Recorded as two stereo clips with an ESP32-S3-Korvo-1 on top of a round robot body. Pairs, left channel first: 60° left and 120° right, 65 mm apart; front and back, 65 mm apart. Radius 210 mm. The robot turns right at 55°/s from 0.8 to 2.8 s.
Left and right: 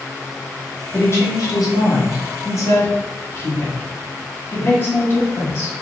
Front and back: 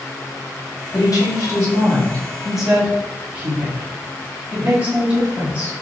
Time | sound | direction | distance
0.9 | a woman speaking | 5° left | 1.7 m